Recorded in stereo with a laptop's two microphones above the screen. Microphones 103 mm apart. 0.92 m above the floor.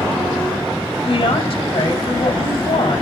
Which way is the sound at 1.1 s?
60° left (ahead or behind).